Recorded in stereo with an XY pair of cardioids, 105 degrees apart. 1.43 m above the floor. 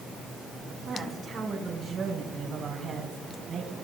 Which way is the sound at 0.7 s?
35° right.